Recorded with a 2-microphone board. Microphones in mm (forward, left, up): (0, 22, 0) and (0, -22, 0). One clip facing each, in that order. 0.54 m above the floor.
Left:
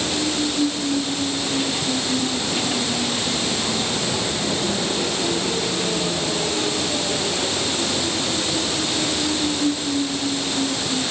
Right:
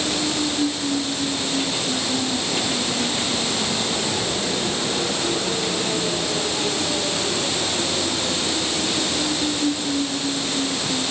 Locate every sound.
Only background noise.